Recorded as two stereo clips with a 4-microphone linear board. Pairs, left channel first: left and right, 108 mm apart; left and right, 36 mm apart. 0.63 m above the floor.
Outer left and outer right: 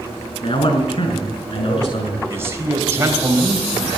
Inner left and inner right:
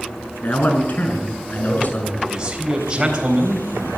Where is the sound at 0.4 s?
55° left (ahead or behind), 6 m; by 2.2 s 65° left (ahead or behind), 7 m.